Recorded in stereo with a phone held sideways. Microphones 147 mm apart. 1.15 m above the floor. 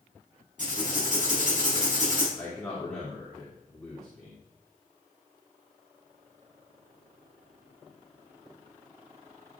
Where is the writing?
55° right (ahead or behind), 4.5 m.